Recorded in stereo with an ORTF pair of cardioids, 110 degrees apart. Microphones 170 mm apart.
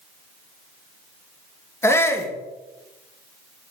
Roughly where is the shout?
Ahead.